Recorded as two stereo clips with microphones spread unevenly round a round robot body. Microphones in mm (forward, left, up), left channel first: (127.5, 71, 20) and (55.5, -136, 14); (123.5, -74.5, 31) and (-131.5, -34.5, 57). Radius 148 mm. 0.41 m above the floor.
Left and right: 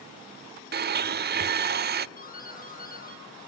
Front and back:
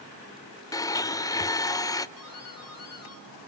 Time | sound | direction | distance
0.7 | a blender | 80° right | 0.8 m
2.2 | a doorbell | 20° left | 8 m